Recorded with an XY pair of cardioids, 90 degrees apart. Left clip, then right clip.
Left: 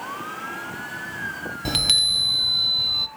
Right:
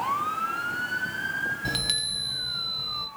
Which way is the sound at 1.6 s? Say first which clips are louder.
Left 8 dB; 55° left.